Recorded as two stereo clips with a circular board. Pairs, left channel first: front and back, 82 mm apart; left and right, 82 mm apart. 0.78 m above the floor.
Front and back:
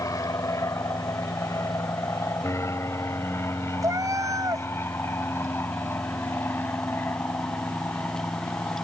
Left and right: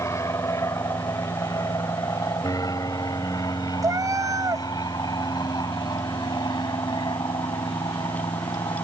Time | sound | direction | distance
0.0 | an aircraft | 40° left | ?
3.8 | a cat meowing | 135° right | ?